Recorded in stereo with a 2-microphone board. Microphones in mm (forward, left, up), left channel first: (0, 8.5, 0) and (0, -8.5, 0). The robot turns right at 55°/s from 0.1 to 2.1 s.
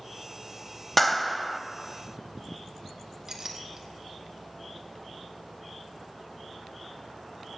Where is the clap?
5° left (ahead or behind), 0.8 m; by 1.6 s 5° right (ahead or behind), 0.8 m.